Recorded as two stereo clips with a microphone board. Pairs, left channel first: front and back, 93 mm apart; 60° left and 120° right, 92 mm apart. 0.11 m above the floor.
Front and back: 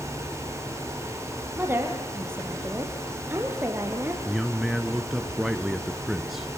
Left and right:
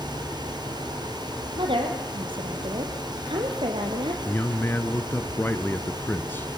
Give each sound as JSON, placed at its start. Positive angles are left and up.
{"t": 1.6, "sound": "a woman speaking", "azimuth_deg": -115, "distance_m": 3.5}
{"t": 4.2, "sound": "a man speaking", "azimuth_deg": 95, "distance_m": 1.4}